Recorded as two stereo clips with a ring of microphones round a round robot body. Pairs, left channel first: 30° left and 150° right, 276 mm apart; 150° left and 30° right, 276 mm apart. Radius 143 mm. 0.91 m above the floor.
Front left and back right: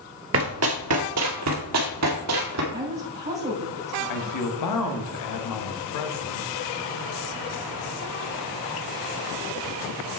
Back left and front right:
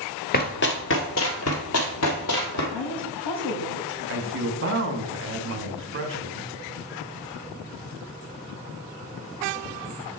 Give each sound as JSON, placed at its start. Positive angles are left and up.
{"t": 0.3, "sound": "running footsteps", "azimuth_deg": -165, "distance_m": 1.2}
{"t": 2.7, "sound": "a woman speaking", "azimuth_deg": 145, "distance_m": 5.0}
{"t": 4.1, "sound": "a man speaking", "azimuth_deg": 15, "distance_m": 1.4}